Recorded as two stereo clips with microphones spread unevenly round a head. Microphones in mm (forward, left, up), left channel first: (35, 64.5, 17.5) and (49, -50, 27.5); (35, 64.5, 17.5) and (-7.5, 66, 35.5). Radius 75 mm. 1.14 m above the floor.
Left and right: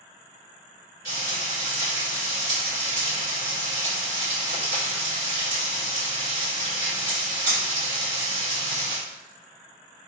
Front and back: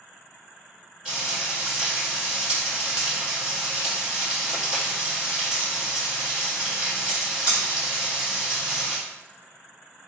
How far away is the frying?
About 1.9 m.